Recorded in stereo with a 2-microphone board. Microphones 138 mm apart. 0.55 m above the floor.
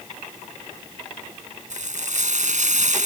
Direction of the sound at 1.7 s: 60° right (ahead or behind).